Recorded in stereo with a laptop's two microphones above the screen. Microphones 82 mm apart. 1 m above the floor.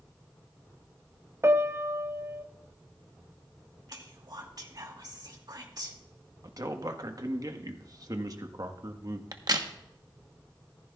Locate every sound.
1.4 s a piano: 35° right (ahead or behind), 0.5 m
3.9 s whispering: 55° right (ahead or behind), 2 m
6.4 s a man speaking: 50° right (ahead or behind), 1.2 m
9.3 s a crack: 55° right (ahead or behind), 1.0 m